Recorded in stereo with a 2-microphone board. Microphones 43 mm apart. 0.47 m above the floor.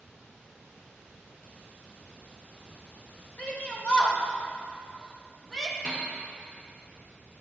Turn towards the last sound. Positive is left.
turn(degrees=25)  # may be behind; listen again after turning